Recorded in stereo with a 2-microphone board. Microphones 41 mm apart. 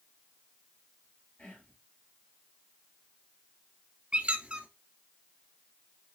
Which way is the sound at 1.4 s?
20° left (ahead or behind).